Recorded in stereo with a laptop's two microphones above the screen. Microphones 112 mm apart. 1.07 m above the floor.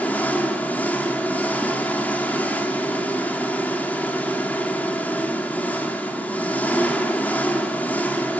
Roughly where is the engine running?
Centre.